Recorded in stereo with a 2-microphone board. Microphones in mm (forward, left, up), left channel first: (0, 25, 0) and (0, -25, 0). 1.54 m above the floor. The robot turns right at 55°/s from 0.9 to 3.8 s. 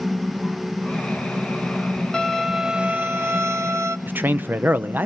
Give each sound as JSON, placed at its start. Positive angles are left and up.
{"t": 2.1, "sound": "a violin", "azimuth_deg": 165, "distance_m": 1.3}
{"t": 4.1, "sound": "a man speaking", "side_deg": -40, "distance_m": 0.8}